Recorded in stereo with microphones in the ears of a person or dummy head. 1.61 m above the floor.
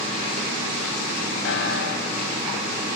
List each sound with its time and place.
1.4 s a piano: 60° left (ahead or behind), 0.7 m